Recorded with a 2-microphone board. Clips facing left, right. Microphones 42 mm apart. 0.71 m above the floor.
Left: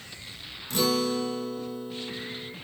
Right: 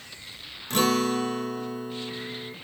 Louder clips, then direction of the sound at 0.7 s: Right 2 dB; 55° right (ahead or behind).